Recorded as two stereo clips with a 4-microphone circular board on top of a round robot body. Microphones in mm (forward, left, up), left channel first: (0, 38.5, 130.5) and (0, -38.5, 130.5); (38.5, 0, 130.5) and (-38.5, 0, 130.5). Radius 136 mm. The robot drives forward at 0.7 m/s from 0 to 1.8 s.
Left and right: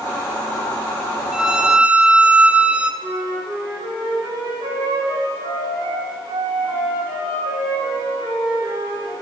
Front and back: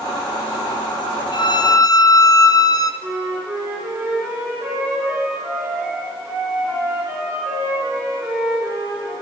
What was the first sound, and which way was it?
A violin, 10° right.